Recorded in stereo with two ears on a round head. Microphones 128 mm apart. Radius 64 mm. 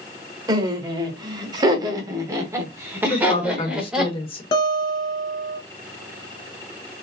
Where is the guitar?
35° left (ahead or behind), 1.3 m.